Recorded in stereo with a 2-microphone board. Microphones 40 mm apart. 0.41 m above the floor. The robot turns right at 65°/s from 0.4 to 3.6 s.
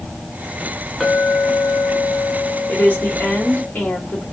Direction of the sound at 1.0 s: 5° right.